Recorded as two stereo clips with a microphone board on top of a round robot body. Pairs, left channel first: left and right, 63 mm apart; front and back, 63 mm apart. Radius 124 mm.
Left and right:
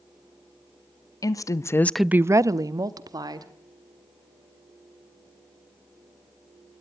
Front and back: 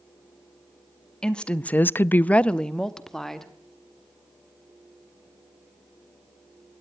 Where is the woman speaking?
75° left, 1.1 m; by 3.5 s 85° right, 2 m.